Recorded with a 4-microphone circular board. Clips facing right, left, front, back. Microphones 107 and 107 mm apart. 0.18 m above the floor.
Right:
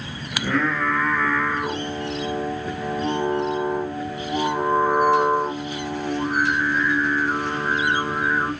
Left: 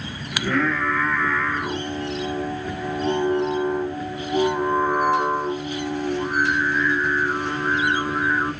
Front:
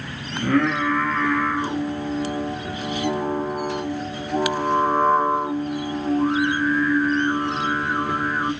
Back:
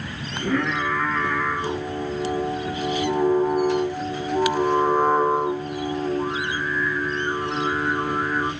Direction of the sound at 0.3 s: 10° right.